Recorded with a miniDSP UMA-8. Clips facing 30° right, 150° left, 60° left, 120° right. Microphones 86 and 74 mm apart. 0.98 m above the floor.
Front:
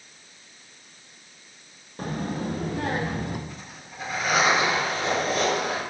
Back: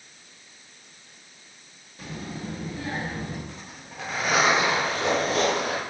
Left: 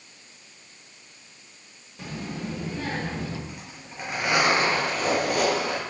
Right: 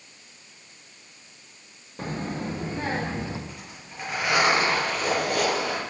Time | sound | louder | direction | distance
2.0 | a child speaking | front 6 dB, right 3 dB | 75° right | 0.8 m
3.5 | a zipper | even, left 1 dB | 140° left | 4 m